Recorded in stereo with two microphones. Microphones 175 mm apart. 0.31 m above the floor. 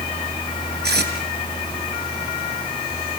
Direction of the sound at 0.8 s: 75° right (ahead or behind).